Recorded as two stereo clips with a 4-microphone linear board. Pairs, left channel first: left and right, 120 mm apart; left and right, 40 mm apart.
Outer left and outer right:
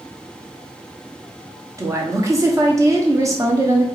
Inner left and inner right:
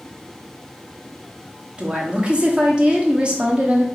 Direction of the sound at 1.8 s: 25° right (ahead or behind).